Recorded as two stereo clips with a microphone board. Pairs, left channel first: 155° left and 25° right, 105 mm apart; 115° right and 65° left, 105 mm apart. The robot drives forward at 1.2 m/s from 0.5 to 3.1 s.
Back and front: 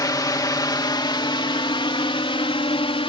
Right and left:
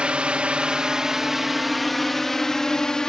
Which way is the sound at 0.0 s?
140° left.